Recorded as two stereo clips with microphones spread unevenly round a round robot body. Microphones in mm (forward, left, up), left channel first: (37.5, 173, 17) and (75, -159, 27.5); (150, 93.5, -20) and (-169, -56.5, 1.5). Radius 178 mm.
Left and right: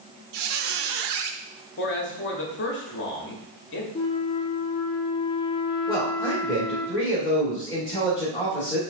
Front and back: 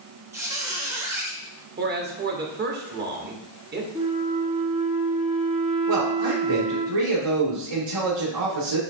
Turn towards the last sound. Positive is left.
turn(degrees=175)